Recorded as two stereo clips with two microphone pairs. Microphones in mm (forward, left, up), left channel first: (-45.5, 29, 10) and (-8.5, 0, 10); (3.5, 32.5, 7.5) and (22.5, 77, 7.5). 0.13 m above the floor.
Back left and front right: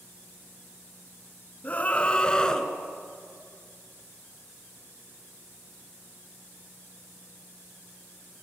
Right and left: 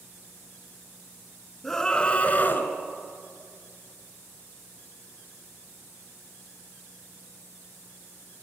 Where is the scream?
165° left, 1.6 m; by 2.7 s 140° right, 2 m.